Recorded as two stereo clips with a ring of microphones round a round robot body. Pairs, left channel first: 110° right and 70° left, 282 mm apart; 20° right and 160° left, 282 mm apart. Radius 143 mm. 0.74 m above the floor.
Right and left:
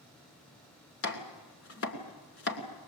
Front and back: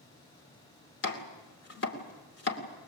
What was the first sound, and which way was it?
Chopping, 75° right.